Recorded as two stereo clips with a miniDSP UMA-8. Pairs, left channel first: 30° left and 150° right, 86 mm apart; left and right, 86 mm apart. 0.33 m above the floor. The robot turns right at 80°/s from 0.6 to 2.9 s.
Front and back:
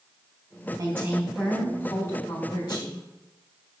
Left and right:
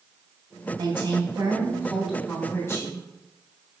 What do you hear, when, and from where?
0.8 s a woman speaking: 110° right, 2.5 m; by 3.1 s 60° left, 2.5 m